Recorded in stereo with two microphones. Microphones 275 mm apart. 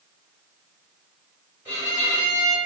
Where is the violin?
5° right (ahead or behind), 1.6 m.